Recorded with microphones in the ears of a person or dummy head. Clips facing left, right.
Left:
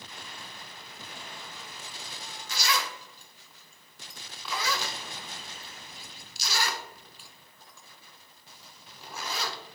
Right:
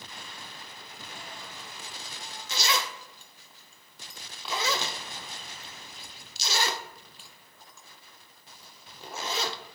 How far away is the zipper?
About 0.5 m.